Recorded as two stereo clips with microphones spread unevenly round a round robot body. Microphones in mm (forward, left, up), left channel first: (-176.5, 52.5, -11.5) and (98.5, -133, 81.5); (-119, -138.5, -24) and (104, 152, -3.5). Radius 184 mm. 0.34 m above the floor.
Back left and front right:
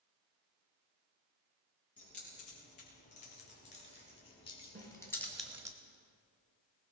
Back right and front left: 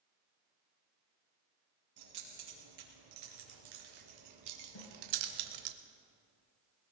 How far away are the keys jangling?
About 5.5 m.